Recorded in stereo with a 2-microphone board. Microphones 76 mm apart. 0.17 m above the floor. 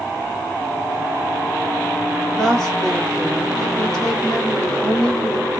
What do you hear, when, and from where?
2.4 s a woman speaking: 5° left (ahead or behind), 1.8 m